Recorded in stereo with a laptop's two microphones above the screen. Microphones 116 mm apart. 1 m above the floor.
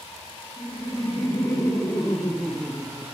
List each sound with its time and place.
0.6 s laughter: 40° left (ahead or behind), 2 m; by 3.1 s 25° right (ahead or behind), 1.0 m